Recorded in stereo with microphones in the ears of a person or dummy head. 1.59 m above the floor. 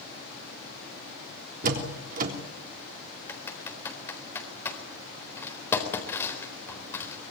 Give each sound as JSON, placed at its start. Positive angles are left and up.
{"t": 1.6, "sound": "a door slam", "side_deg": -50, "distance_m": 3.5}
{"t": 3.3, "sound": "typing on a keyboard", "side_deg": 10, "distance_m": 4.0}